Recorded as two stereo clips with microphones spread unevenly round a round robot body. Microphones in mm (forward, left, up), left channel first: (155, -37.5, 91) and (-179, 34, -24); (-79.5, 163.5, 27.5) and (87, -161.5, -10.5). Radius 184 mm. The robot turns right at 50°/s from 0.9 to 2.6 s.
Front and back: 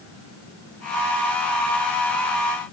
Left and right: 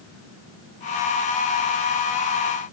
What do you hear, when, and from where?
Only background noise.